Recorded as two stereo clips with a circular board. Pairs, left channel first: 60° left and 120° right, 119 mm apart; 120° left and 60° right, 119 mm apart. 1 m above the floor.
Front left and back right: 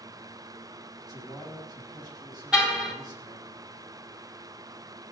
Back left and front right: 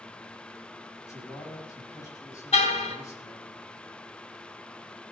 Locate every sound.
1.0 s a man speaking: 175° right, 6 m
2.5 s a car horn: 155° left, 3 m